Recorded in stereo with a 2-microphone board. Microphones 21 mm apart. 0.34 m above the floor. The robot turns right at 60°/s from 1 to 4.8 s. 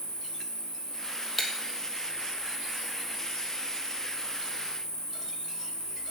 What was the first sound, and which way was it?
An insect, 110° right.